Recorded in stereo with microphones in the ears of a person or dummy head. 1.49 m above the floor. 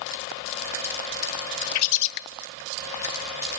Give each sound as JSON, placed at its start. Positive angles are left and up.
{"t": 1.8, "sound": "a bird", "side_deg": 85, "distance_m": 0.5}